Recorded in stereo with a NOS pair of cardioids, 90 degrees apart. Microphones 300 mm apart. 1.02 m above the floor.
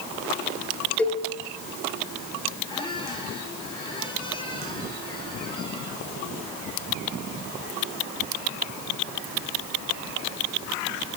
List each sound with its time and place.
1.0 s a cowbell: 5° left, 5.5 m
2.7 s a squeak: 15° left, 8 m